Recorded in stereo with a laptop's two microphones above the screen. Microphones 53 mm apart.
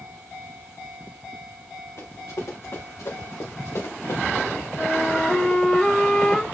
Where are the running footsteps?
70° left (ahead or behind), 4.5 m; by 5.6 s 65° left (ahead or behind), 4.5 m.